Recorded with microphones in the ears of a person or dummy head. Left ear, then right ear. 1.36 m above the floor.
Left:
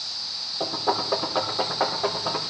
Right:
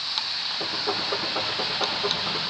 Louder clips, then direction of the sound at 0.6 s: Left 1 dB; 45° left (ahead or behind).